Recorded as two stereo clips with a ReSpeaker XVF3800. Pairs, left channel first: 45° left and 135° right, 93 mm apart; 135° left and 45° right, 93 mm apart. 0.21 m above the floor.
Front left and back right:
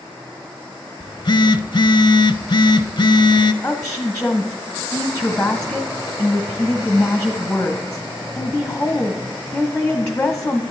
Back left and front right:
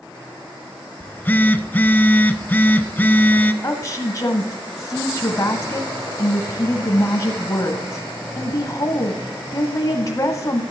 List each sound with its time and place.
1.0 s a phone buzzing: 65° left, 0.6 m
3.6 s a woman speaking: 120° left, 1.1 m